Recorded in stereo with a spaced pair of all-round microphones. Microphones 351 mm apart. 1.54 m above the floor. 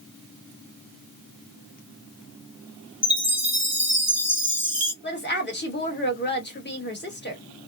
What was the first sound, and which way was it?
A chime, 45° left (ahead or behind).